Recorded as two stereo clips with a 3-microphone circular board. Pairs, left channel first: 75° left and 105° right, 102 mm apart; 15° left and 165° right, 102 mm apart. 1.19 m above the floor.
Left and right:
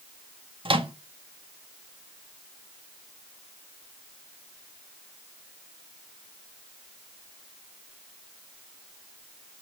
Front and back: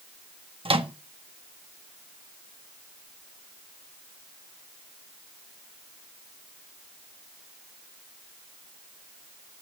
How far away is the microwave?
About 1.5 m.